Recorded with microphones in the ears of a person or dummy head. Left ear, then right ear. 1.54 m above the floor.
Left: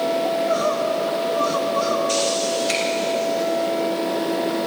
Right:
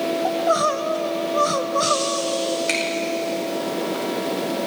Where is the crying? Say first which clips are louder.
Right 1 dB; 70° right (ahead or behind), 0.8 m.